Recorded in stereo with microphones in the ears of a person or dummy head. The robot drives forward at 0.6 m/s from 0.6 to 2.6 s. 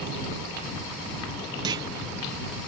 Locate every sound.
1.6 s a clunk: 20° right (ahead or behind)